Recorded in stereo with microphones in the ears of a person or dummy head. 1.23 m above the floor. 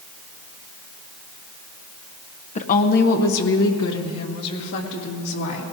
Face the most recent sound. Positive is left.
turn(degrees=90)